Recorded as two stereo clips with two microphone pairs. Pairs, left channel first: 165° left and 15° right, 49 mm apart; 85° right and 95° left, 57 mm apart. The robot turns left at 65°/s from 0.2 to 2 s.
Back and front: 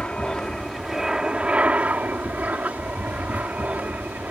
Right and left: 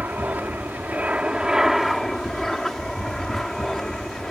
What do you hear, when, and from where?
0.0 s an aircraft: 115° left; by 4.3 s 5° right